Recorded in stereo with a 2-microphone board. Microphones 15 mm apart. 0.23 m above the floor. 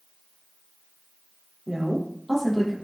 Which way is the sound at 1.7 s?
10° right (ahead or behind).